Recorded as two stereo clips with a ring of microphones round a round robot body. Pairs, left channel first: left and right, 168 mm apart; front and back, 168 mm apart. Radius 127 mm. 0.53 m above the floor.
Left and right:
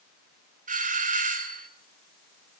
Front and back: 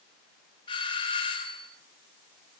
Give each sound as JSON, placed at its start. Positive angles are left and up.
{"t": 0.7, "sound": "a doorbell", "azimuth_deg": -60, "distance_m": 3.5}